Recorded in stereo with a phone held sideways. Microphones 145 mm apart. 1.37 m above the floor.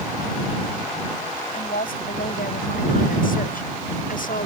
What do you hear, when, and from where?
1.5 s a woman speaking: 80° left